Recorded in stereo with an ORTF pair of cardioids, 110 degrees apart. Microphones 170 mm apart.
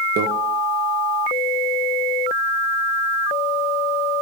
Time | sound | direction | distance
0.2 | a microwave | 70° right | 1.3 m